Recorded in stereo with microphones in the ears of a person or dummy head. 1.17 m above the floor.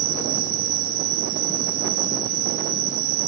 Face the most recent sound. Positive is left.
turn(degrees=-40)  # may be behind; listen again after turning